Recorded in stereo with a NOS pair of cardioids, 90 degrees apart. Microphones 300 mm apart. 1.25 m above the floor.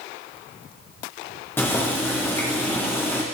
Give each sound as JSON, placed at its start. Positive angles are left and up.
{"t": 1.6, "sound": "boiling", "azimuth_deg": 5, "distance_m": 1.2}